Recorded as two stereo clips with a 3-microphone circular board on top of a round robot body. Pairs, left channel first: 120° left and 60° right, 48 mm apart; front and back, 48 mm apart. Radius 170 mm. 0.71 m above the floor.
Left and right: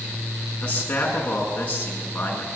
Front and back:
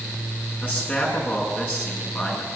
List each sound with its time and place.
0.6 s a man speaking: 60° left, 9 m